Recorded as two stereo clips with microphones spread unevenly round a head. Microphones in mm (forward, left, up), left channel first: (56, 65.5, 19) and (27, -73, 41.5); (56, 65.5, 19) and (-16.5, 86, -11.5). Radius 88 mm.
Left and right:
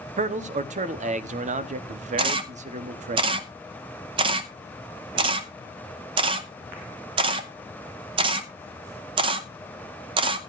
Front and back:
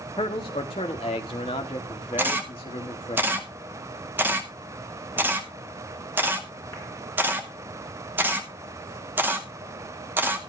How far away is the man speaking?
About 1.0 m.